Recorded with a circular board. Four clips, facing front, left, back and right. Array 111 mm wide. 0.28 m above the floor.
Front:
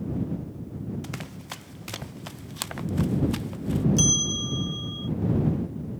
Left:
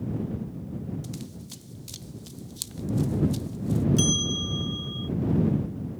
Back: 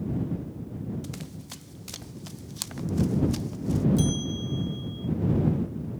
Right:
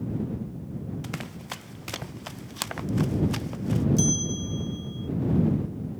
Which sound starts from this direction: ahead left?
A bell, at 4.0 s.